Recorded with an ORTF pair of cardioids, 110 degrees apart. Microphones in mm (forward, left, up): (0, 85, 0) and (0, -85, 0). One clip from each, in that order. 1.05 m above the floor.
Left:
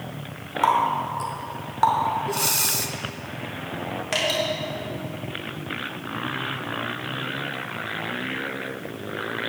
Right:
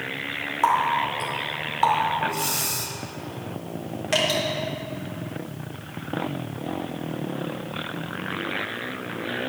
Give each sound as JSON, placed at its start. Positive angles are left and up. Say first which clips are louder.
{"t": 0.6, "sound": "a running tap", "louder": "even", "azimuth_deg": 5, "distance_m": 2.0}
{"t": 2.3, "sound": "breathing", "louder": "left 2 dB", "azimuth_deg": 30, "distance_m": 1.0}
{"t": 4.1, "sound": "dripping", "louder": "right 2 dB", "azimuth_deg": 0, "distance_m": 3.5}